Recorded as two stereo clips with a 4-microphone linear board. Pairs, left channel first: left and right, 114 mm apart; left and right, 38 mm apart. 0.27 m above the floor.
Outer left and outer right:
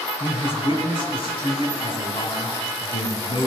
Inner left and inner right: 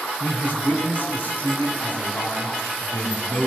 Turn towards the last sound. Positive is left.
turn(degrees=50)  # may be behind; listen again after turning